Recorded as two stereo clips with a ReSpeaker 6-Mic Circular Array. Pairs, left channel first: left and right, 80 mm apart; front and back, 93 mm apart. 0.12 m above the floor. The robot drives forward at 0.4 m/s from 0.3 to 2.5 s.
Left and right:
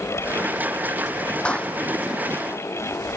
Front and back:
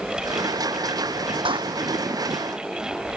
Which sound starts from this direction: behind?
A clap, at 1.4 s.